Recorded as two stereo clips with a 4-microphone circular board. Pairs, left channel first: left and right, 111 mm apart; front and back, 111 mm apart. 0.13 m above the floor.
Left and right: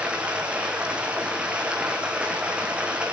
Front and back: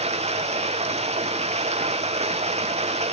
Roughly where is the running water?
Behind.